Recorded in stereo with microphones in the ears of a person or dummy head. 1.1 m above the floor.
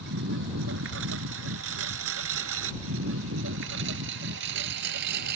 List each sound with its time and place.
0.0 s a lawn mower: 70° right (ahead or behind); by 5.4 s 55° right (ahead or behind)